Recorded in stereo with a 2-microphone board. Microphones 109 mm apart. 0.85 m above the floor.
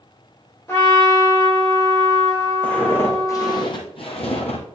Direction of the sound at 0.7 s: 25° left (ahead or behind).